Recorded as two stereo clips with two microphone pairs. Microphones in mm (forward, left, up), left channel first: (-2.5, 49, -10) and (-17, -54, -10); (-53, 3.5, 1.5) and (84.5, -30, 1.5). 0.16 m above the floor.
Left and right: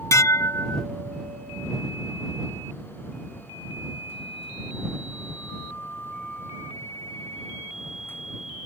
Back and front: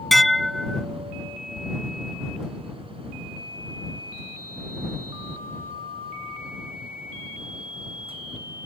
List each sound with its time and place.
0.1 s dishes clattering: 75° left